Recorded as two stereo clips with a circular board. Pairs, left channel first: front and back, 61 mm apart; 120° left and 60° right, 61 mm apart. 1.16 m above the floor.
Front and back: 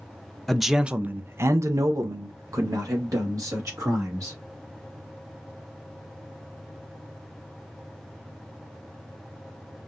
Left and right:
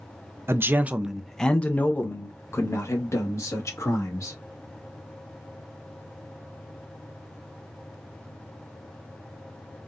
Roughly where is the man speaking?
Right.